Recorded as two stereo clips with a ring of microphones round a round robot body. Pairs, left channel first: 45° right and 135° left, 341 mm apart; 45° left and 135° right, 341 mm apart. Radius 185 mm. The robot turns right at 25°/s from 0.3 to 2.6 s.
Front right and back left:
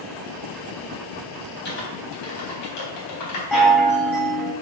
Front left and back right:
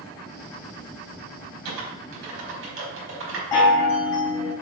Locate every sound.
1.6 s typing on a keyboard: 105° right, 3.5 m; by 3.4 s 80° right, 3.5 m
3.5 s a chime: 45° left, 3.5 m